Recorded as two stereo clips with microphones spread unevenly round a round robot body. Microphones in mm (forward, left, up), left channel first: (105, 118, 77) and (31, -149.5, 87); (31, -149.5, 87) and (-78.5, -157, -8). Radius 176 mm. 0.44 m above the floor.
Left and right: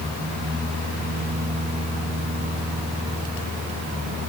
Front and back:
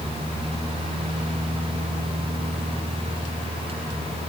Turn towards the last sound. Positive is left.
No sound to turn to.